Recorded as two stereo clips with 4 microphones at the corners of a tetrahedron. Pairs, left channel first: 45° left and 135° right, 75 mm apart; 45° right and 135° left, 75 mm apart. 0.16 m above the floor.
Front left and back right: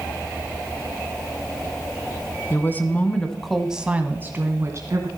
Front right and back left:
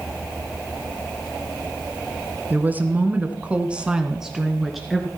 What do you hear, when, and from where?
2.5 s a woman speaking: 85° left, 1.7 m; by 5.1 s 135° right, 2.0 m